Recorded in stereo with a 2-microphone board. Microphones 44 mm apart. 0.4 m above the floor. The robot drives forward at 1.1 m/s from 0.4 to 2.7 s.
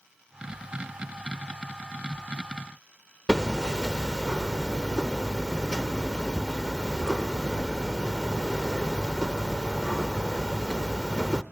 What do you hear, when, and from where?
3.3 s hammering: 15° left (ahead or behind), 0.7 m